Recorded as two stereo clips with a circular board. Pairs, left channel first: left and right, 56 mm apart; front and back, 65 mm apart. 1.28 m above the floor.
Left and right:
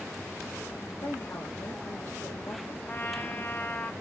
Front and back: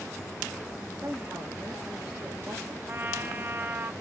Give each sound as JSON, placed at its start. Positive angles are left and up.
{"t": 1.0, "sound": "a woman speaking", "azimuth_deg": 115, "distance_m": 1.0}
{"t": 2.9, "sound": "a trumpet", "azimuth_deg": 130, "distance_m": 0.5}